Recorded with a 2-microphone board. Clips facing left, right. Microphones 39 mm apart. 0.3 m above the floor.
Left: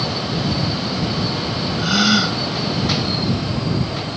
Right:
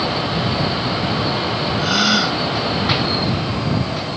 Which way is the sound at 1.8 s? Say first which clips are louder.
Left 1 dB; centre (ahead or behind).